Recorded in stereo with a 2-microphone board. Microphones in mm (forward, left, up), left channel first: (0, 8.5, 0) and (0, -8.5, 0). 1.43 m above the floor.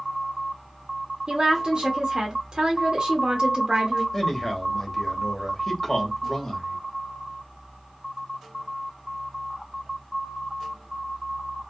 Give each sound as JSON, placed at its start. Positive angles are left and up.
{"t": 1.3, "sound": "a woman speaking", "side_deg": -45, "distance_m": 0.6}
{"t": 4.1, "sound": "a man speaking", "side_deg": 20, "distance_m": 1.2}